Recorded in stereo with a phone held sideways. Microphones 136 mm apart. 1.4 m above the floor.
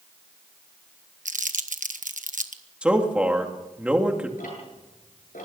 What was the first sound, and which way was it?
Crumpling, 70° right (ahead or behind).